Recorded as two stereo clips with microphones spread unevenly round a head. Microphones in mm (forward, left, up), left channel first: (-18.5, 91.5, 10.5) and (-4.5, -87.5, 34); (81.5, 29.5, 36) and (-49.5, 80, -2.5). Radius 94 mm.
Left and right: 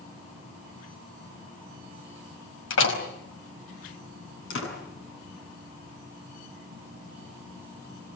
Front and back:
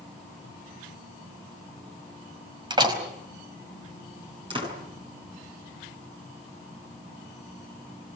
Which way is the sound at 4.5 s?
105° left.